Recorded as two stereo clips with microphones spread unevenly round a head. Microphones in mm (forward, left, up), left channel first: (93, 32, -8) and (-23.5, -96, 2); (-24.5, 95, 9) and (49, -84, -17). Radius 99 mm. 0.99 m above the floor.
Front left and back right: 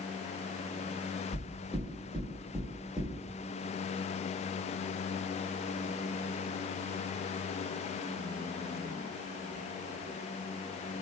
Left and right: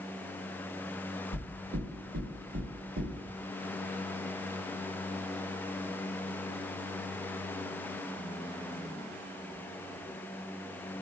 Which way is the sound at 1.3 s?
45° right.